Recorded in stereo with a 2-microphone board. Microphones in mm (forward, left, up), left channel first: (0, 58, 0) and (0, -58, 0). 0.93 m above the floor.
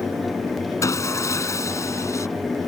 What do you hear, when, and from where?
0.8 s sawing: 25° left (ahead or behind)